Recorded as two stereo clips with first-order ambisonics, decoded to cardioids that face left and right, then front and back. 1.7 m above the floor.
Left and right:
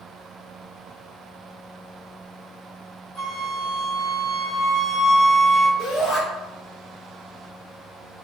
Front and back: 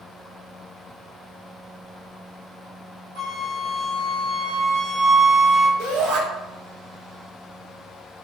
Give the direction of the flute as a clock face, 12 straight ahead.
7 o'clock.